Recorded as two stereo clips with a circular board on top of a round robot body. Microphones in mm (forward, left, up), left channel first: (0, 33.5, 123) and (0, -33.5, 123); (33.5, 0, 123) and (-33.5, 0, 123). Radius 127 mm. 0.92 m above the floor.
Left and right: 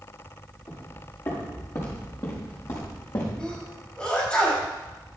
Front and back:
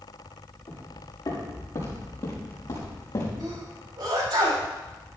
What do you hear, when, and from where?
0.7 s footsteps: 40° left, 5 m; by 3.3 s 45° left, 3.5 m
3.4 s a sneeze: 165° left, 5.5 m